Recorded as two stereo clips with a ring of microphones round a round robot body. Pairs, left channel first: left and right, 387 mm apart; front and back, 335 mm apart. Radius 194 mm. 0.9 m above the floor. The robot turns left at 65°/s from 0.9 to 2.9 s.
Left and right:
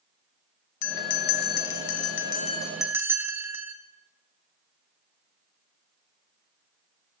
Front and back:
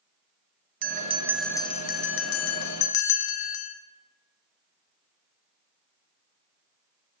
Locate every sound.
0.8 s a bell: 125° left, 0.5 m; by 3.8 s 5° right, 0.5 m